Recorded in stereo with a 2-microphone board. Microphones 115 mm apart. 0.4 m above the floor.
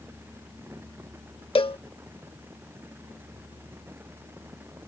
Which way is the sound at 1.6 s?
55° left (ahead or behind).